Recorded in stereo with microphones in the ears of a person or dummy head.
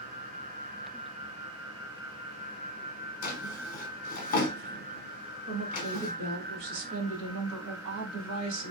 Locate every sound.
3.2 s a drawer: 50° left (ahead or behind), 0.9 m
5.5 s a woman speaking: 80° right, 1.4 m